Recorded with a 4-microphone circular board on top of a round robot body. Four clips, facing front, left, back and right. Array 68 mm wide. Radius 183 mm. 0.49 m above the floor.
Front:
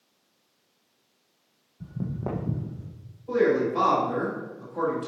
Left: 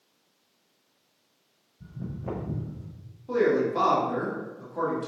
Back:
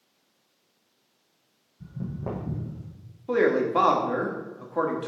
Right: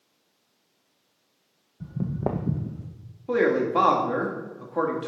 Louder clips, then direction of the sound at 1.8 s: Right 9 dB, front 2 dB; 70° right.